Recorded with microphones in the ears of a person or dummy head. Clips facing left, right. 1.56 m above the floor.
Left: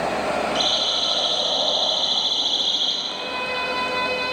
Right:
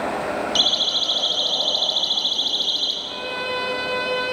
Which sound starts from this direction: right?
A siren, at 0.6 s.